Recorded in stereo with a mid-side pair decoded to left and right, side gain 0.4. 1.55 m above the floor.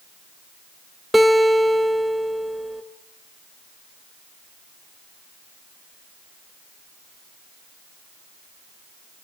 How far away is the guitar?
About 3 m.